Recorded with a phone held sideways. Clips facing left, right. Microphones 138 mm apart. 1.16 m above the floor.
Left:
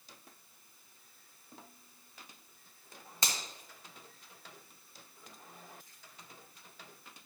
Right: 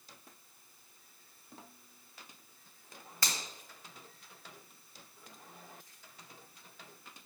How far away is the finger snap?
About 1.5 m.